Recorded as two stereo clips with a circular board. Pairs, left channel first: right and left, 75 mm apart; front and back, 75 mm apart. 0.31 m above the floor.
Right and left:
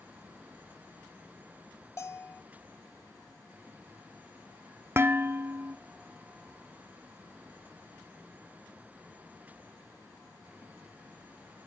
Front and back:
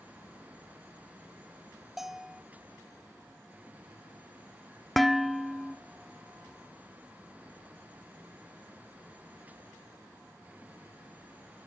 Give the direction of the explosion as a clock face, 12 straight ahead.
I don't hear an explosion.